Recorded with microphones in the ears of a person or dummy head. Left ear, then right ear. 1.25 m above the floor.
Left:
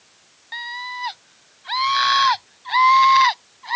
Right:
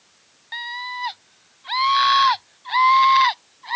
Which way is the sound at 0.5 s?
5° right (ahead or behind).